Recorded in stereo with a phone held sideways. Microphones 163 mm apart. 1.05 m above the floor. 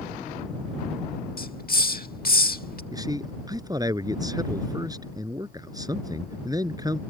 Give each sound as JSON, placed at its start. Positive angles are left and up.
{"t": 1.4, "sound": "a hiss", "side_deg": 65}
{"t": 2.9, "sound": "a man speaking", "side_deg": -25}